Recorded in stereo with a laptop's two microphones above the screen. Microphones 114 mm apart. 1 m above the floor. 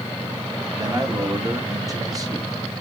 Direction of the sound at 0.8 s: 30° right (ahead or behind).